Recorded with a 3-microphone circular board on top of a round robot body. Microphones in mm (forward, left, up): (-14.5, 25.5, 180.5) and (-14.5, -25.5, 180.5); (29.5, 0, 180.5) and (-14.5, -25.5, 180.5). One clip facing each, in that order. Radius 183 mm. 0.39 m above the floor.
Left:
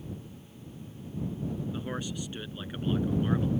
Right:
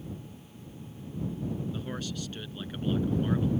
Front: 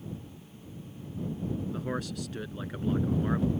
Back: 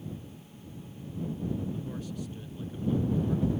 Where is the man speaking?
20° left; by 3.5 s 15° left.